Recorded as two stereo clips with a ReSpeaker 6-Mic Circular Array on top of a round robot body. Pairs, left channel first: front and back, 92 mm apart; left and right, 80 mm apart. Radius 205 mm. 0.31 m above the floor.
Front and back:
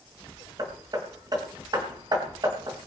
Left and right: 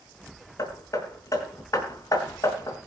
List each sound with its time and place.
0.6 s hammering: 135° left, 5 m